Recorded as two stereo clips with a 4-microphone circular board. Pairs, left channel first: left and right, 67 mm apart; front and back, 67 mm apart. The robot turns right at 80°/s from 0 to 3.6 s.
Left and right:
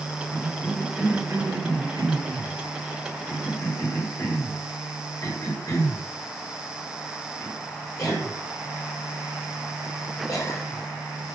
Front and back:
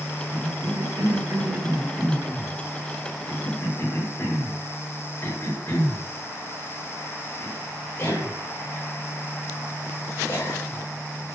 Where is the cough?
155° left, 7 m; by 11.4 s 60° left, 7 m.